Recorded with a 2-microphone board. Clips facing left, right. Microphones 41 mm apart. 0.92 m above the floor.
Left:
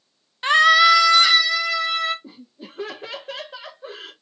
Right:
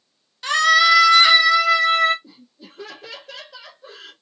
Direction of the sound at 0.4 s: 25° left (ahead or behind).